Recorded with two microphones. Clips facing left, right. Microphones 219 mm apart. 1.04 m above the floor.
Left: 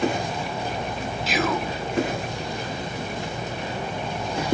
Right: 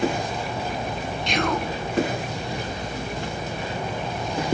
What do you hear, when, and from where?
1.3 s whispering: 5° left (ahead or behind), 0.6 m